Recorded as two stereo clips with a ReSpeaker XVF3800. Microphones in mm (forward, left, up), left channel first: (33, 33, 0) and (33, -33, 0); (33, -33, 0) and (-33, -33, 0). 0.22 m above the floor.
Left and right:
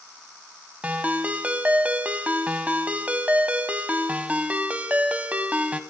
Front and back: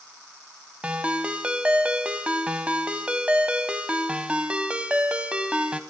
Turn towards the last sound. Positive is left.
turn(degrees=-130)